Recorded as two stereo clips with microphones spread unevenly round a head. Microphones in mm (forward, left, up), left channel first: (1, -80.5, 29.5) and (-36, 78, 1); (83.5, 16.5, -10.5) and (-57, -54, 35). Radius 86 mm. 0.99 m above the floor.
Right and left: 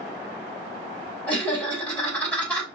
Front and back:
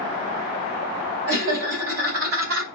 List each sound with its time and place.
1.3 s laughter: 160° right, 2.5 m